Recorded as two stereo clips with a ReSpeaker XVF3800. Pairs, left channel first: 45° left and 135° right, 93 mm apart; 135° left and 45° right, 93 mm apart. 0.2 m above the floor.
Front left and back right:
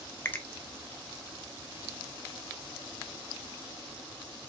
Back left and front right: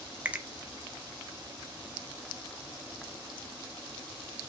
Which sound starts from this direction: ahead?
A finger snap, at 0.2 s.